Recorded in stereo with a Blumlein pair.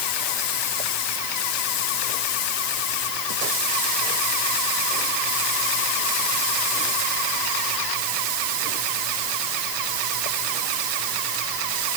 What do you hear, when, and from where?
Only background noise.